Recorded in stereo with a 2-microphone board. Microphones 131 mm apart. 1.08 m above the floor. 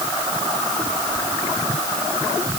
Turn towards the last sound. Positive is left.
No sound to turn to.